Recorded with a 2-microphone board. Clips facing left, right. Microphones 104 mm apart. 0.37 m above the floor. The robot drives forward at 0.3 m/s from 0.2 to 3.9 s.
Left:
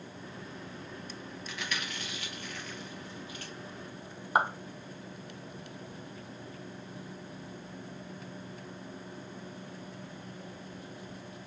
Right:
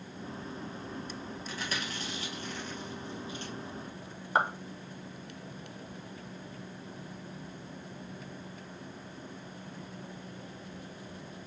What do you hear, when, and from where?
1.5 s chewing: 40° right (ahead or behind), 1.3 m; by 3.5 s 25° right (ahead or behind), 1.8 m
4.3 s a clap: 10° left (ahead or behind), 0.9 m